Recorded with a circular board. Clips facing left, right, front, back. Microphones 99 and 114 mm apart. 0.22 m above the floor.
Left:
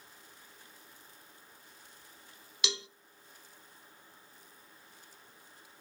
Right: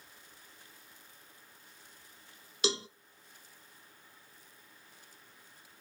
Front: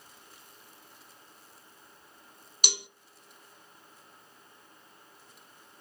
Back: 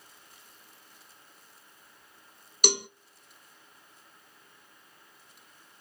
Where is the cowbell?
140° right, 0.5 m.